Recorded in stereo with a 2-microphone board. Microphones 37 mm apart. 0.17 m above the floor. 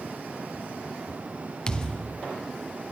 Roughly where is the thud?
Left.